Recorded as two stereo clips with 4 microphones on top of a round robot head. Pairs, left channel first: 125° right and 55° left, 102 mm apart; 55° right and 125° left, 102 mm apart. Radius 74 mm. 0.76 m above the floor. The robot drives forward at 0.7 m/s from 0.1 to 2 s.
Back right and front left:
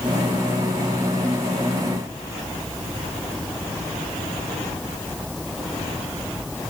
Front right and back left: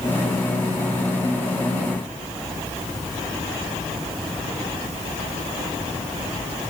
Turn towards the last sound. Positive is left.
No sound to turn to.